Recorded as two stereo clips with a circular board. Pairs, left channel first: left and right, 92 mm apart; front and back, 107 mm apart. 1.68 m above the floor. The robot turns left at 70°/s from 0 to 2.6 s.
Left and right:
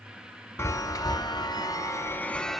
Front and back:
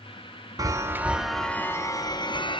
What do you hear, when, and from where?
0.6 s a chime: 140° left, 0.9 m; by 2.6 s straight ahead, 0.9 m